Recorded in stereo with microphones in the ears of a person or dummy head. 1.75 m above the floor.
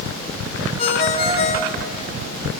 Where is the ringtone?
40° left (ahead or behind), 1.4 m.